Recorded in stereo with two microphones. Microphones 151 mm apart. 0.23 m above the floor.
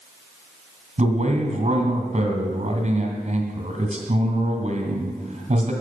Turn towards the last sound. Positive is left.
turn(degrees=-50)  # may be behind; listen again after turning